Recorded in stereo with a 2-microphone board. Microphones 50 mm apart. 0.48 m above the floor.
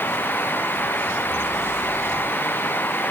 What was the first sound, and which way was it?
Only background noise.